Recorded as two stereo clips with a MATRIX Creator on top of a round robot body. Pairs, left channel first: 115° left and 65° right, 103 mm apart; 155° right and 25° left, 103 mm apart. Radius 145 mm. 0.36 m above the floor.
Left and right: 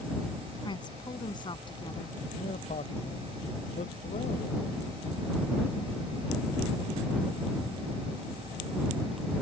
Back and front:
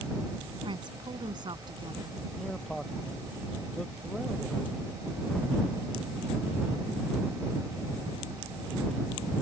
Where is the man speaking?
115° left.